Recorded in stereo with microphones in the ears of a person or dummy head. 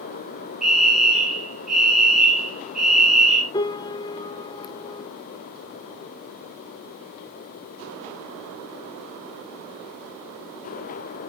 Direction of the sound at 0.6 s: 5° right (ahead or behind).